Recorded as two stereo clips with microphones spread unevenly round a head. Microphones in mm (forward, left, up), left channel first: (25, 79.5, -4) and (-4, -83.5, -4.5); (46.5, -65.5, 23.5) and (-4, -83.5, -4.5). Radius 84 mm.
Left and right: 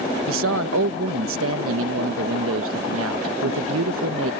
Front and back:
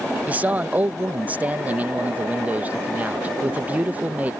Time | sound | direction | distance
0.3 | a man speaking | 100° right | ?